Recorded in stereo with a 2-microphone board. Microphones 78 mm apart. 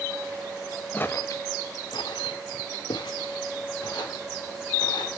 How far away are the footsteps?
About 1.1 m.